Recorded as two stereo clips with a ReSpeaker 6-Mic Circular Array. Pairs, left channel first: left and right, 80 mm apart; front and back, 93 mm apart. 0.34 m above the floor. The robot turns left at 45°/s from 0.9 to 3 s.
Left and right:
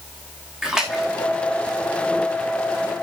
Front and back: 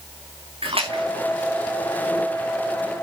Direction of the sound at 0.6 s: 175° right.